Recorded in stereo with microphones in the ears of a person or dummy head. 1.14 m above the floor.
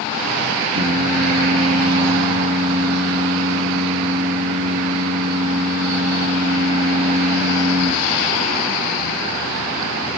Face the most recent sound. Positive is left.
turn(degrees=-80)